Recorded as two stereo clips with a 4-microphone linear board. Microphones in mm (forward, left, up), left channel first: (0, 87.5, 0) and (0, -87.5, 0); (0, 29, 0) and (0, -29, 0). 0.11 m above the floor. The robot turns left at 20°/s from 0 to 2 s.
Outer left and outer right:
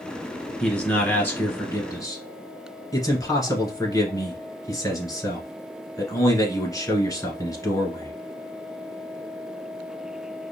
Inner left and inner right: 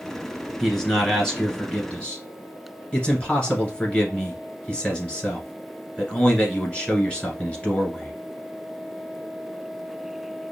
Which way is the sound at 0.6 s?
5° left (ahead or behind).